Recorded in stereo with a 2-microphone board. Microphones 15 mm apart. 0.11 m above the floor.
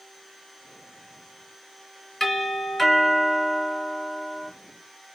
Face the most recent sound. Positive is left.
turn(degrees=30)  # may be behind; listen again after turning